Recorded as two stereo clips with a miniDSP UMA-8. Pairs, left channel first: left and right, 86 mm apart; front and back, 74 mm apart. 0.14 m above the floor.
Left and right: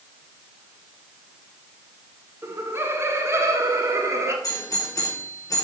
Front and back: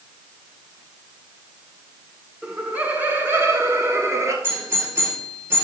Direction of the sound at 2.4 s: 115° right.